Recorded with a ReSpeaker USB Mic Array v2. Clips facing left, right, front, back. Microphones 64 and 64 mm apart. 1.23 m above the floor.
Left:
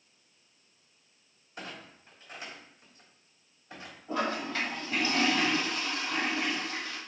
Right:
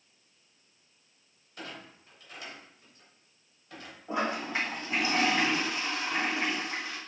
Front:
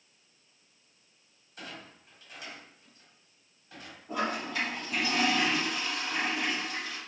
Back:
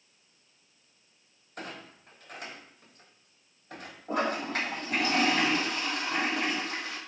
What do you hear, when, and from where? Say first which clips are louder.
1.6 s a clunk: even, back 3 dB; 155° left, 3 m
4.1 s a toilet flushing: right 1 dB, back 3 dB; 160° right, 3.5 m